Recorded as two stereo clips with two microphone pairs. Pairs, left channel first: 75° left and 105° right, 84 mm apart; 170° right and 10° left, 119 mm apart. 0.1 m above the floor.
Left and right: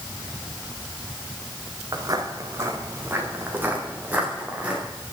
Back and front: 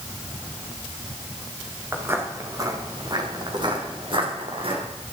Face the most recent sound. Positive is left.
turn(degrees=-30)